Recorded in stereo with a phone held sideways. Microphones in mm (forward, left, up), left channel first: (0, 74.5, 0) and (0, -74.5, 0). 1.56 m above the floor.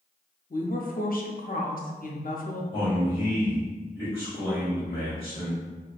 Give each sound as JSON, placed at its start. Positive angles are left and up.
{"t": 0.5, "sound": "a woman speaking", "side_deg": 65, "distance_m": 0.5}
{"t": 2.7, "sound": "a man speaking", "side_deg": 35, "distance_m": 1.9}